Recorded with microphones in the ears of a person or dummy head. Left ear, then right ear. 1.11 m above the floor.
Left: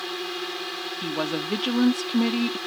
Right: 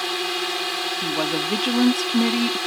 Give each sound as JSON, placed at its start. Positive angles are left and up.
{"t": 0.0, "sound": "a drone", "side_deg": -20}
{"t": 1.0, "sound": "a woman speaking", "side_deg": 5}